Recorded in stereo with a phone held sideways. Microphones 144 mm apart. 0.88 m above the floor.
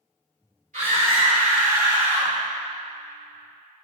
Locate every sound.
0.7 s a scream: 70° right (ahead or behind), 3.5 m; by 2.4 s 40° right (ahead or behind), 1.8 m